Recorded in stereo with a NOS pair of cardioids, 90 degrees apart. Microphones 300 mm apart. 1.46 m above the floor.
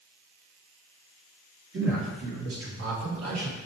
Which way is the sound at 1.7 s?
40° right.